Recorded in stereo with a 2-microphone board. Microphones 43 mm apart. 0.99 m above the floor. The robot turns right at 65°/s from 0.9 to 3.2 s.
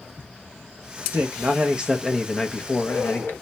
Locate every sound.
1.1 s a man speaking: 65° right, 0.7 m; by 3.3 s 70° left, 0.7 m